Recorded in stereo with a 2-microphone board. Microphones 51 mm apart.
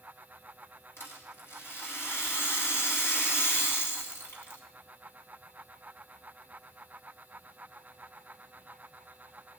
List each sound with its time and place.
1.0 s a rattle: 55° left (ahead or behind), 2.5 m